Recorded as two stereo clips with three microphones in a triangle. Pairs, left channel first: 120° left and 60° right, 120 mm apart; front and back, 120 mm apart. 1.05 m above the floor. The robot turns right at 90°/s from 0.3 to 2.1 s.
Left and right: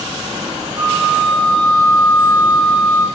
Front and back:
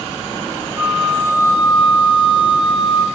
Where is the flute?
110° right, 0.6 m; by 3.0 s 10° left, 0.6 m.